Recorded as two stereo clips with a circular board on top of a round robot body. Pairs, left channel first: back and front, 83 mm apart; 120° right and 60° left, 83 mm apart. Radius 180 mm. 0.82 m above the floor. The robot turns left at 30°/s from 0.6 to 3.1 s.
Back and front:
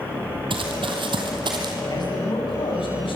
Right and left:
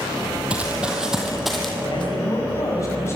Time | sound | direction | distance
0.5 | running footsteps | 20° right | 2.5 m
1.9 | a man speaking | 145° right | 6.5 m